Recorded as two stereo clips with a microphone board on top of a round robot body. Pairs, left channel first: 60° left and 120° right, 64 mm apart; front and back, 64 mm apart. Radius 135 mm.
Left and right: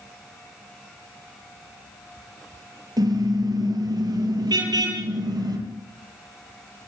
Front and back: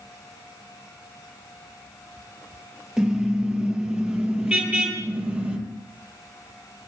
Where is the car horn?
100° right, 8.5 m; by 5.6 s 110° right, 9.5 m.